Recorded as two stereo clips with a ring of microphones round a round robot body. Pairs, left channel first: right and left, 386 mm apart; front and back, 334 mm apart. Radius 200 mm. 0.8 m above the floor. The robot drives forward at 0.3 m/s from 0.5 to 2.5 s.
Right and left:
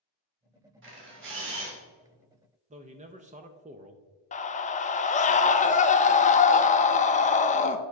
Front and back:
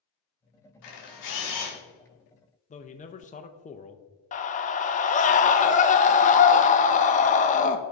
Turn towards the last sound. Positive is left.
turn(degrees=-40)